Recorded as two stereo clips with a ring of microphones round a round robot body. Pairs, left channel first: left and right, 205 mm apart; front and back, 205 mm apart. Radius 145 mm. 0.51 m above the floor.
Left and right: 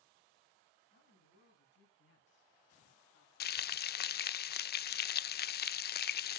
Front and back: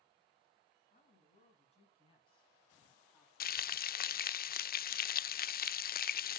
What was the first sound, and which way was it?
A woman speaking, 50° left.